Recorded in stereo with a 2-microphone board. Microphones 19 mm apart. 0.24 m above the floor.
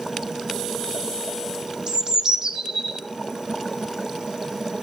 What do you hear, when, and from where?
1.9 s a bird: 45° right (ahead or behind), 2.5 m